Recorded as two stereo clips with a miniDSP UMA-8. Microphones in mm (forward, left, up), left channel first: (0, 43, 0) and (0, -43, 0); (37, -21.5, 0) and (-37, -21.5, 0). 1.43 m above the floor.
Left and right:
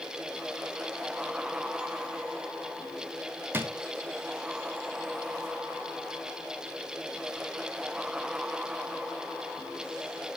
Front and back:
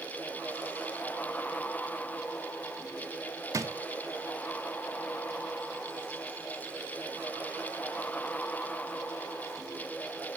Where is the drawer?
150° right, 0.8 m.